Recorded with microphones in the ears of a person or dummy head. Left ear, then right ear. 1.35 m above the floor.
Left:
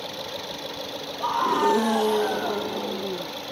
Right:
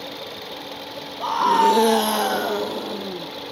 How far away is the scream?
About 0.9 m.